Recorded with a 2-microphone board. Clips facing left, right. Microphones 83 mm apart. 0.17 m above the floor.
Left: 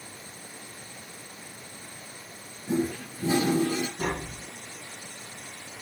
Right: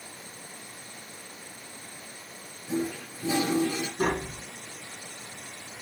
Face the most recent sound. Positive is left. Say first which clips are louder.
# right 3 dB
turn(degrees=-50)  # may be behind; listen again after turning